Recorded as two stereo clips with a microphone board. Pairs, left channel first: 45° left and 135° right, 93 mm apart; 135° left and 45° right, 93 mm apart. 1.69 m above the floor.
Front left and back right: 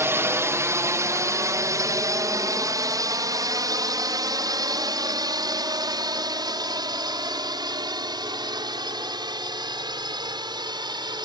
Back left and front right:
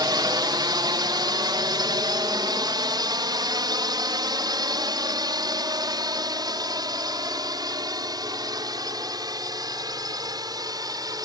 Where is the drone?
75° right; by 11.3 s 95° right.